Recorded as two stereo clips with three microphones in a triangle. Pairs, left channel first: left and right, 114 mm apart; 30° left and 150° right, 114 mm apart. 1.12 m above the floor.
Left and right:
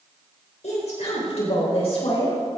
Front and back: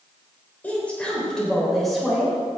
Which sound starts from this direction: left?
A woman speaking, at 0.6 s.